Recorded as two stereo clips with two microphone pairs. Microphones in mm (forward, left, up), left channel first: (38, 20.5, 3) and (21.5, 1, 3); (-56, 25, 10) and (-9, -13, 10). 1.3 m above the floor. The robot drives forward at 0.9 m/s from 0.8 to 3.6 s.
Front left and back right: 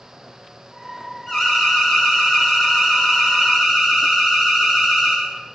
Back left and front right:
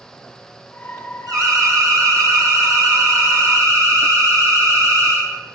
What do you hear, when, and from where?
1.3 s an alarm: 50° right, 8.5 m; by 5.2 s 60° right, 7 m